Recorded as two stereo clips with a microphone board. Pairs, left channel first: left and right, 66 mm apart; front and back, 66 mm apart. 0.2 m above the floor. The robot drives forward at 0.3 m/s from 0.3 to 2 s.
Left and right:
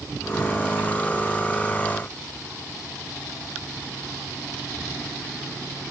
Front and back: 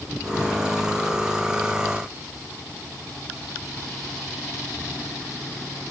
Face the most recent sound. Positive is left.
No sound to turn to.